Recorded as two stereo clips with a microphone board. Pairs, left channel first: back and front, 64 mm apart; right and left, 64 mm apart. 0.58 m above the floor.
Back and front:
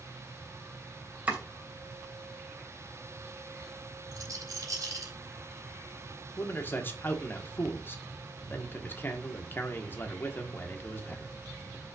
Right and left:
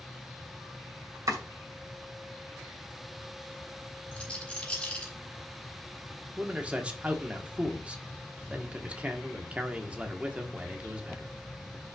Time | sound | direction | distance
1.3 | chopping | 70° left | 2.5 m
4.1 | a rattle | 20° right | 4 m
6.4 | a man speaking | 150° left | 1.5 m